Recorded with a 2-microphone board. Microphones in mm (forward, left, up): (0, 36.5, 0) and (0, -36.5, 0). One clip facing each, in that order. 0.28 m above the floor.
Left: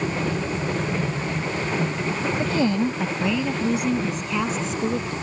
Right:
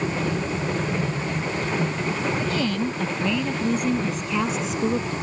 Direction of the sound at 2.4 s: 30° left (ahead or behind).